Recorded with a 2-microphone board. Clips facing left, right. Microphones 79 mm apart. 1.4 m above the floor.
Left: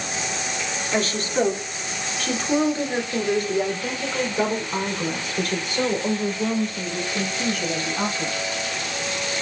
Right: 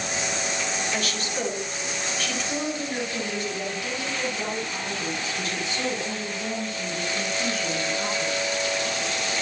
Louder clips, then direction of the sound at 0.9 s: Left 6 dB; 40° left (ahead or behind).